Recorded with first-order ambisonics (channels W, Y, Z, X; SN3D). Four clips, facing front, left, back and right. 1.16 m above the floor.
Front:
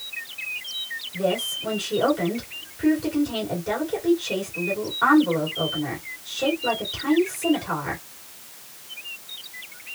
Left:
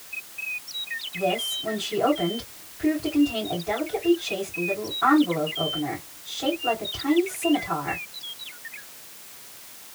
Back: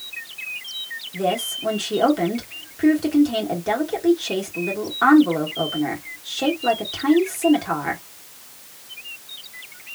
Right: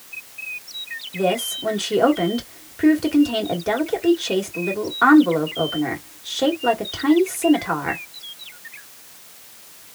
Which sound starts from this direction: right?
A woman speaking, at 1.1 s.